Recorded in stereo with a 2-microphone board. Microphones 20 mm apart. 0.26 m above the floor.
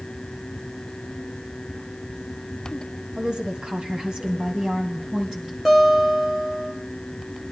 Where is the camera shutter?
I don't hear a camera shutter.